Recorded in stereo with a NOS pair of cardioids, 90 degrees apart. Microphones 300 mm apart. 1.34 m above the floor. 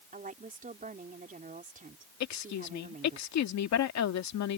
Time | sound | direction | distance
0.1 | a woman speaking | 25° right | ?
2.2 | a woman speaking | 65° left | ?